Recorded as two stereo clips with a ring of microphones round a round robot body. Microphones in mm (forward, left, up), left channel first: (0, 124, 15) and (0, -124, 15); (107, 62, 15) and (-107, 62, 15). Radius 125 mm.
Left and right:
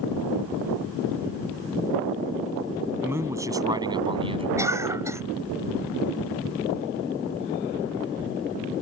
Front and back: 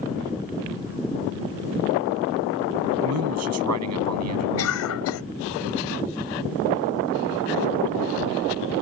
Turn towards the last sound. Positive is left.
turn(degrees=-10)